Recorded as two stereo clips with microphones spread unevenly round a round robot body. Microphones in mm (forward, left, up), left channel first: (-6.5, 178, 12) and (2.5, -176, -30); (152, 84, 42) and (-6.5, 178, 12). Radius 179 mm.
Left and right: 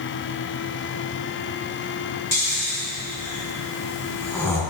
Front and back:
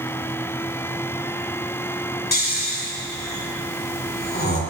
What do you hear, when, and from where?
2.3 s snoring: 5° left, 2.5 m